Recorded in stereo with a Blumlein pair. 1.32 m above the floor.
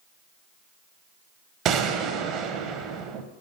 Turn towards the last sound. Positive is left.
turn(degrees=-30)